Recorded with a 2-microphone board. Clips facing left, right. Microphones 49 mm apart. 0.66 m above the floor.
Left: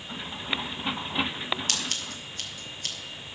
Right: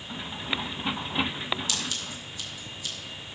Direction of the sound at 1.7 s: 50° left (ahead or behind).